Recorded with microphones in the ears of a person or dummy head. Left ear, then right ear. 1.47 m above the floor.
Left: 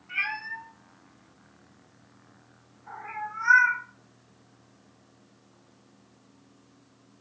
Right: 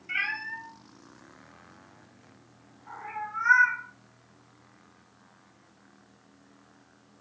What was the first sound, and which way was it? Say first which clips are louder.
A cat meowing: even; 50° right (ahead or behind).